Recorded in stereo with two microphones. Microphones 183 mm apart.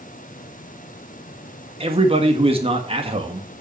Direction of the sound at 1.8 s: 35° right (ahead or behind).